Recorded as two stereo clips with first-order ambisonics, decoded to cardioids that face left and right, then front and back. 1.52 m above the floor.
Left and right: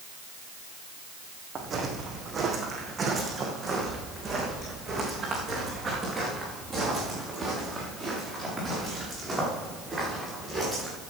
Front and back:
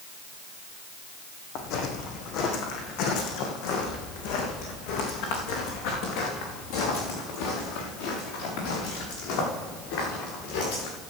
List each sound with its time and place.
1.6 s footsteps: 25° right, 3 m; by 10.9 s straight ahead, 7 m